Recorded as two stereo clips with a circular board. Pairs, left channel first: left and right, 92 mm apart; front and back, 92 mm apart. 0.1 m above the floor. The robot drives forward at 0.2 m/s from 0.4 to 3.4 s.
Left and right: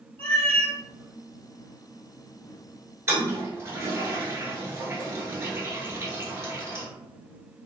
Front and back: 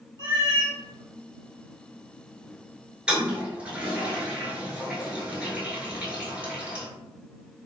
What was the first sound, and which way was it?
A cat meowing, 160° left.